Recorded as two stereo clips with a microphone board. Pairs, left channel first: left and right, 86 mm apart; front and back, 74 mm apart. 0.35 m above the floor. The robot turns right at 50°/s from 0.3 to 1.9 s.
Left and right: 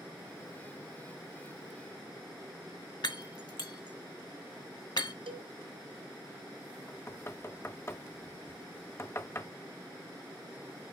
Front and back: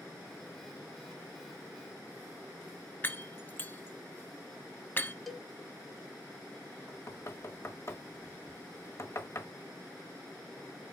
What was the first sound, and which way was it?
Breaking glass, 60° left.